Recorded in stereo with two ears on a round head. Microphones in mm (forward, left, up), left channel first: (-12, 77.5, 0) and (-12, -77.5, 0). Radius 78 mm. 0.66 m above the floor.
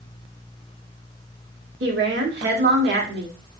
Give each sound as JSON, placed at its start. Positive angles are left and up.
{"t": 1.8, "sound": "a woman speaking", "side_deg": -70, "distance_m": 1.4}